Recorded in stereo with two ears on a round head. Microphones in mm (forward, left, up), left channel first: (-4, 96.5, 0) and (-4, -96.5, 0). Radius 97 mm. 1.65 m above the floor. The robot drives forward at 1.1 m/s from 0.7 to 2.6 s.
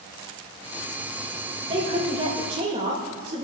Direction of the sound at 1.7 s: 25° right (ahead or behind).